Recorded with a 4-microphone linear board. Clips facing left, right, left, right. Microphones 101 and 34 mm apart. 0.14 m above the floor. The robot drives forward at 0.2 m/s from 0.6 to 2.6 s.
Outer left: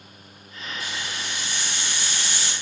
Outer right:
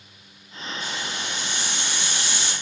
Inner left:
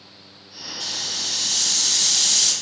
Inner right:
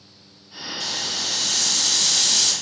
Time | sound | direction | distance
0.8 | a hiss | centre (ahead or behind) | 1.4 m